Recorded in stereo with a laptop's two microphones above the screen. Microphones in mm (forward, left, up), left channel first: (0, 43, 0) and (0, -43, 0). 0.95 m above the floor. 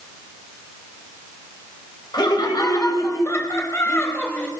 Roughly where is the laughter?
Left.